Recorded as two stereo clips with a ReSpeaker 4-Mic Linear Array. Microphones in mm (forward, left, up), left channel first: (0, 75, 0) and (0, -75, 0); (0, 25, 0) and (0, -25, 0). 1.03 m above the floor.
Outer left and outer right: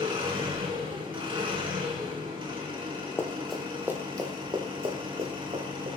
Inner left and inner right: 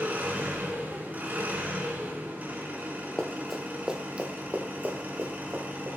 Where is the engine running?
35° right (ahead or behind), 5 m.